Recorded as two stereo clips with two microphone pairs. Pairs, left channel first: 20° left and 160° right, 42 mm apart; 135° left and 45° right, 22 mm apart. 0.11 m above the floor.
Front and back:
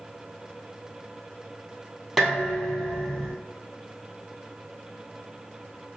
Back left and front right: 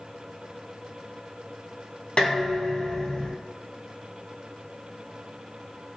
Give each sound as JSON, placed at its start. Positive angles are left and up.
{"t": 2.2, "sound": "dishes clattering", "azimuth_deg": 120, "distance_m": 1.8}